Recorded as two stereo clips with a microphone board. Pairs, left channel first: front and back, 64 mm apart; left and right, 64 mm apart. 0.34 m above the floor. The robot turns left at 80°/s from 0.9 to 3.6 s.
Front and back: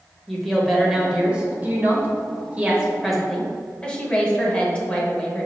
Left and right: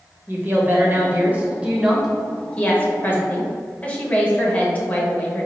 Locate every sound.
0.3 s a woman speaking: 90° right, 0.9 m; by 5.5 s 55° left, 0.9 m